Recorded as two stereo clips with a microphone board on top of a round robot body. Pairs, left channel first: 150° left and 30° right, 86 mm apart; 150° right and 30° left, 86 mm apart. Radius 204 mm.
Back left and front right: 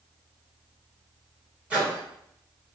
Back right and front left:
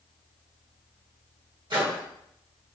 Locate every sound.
1.7 s a microwave: 45° left, 1.7 m